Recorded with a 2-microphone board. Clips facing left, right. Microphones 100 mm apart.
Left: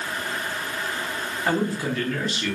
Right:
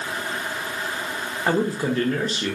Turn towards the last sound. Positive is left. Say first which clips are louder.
# right 3 dB
turn(degrees=-30)  # may be behind; listen again after turning